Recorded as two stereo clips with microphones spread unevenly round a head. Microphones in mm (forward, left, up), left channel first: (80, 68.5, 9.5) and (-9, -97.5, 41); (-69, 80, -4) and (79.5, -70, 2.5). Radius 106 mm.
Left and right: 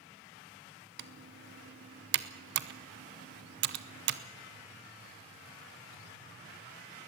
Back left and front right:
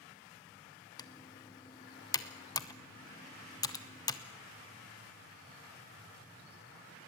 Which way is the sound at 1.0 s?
155° right.